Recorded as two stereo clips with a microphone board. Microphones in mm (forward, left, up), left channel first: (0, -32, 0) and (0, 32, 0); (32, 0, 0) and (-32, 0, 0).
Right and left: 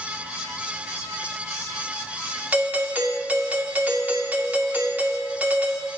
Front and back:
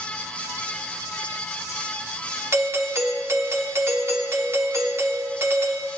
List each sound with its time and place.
2.5 s a doorbell: 150° left, 1.6 m